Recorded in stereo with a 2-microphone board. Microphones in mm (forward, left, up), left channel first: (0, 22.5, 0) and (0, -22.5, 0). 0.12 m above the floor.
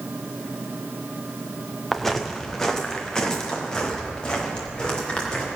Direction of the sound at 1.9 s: 5° left (ahead or behind).